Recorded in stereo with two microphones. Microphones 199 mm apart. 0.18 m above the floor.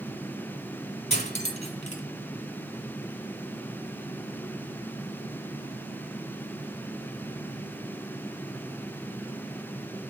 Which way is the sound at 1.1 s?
40° left (ahead or behind).